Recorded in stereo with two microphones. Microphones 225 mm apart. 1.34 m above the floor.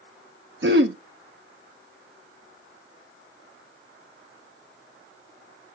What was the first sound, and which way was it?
Throat clearing, 50° right (ahead or behind).